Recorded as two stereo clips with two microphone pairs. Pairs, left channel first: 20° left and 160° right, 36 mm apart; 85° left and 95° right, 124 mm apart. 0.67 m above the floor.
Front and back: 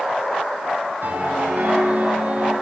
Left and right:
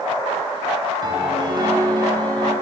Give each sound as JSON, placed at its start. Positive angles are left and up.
{"t": 1.0, "sound": "a piano", "azimuth_deg": -145, "distance_m": 5.0}